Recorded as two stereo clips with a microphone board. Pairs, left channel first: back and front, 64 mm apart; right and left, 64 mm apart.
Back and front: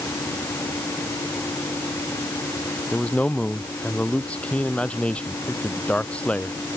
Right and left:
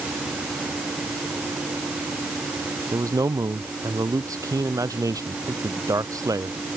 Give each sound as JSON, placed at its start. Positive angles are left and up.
{"t": 2.9, "sound": "a man speaking", "azimuth_deg": 110}